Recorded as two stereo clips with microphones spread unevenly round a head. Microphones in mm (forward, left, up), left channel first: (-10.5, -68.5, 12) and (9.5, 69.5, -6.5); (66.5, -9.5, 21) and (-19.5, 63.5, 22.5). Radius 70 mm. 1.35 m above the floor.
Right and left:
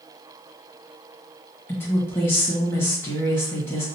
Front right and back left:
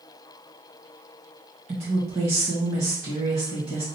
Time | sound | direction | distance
1.7 | a woman speaking | 175° right | 1.7 m